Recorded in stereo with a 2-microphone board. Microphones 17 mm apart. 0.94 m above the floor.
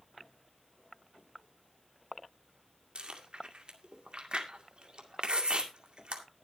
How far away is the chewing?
About 2.0 m.